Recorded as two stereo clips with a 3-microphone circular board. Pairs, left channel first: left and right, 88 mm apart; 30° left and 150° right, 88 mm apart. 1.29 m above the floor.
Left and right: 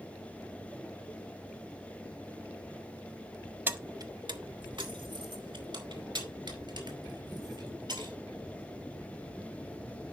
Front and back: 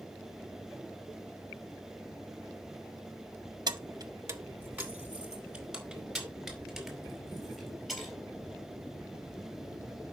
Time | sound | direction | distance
3.7 | keys jangling | 155° right | 0.7 m